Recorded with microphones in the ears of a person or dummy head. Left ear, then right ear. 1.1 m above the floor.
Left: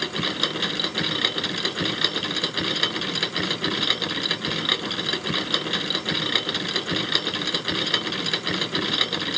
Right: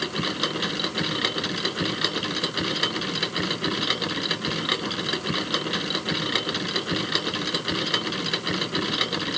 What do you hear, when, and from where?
0.0 s a machine running: 5° left (ahead or behind)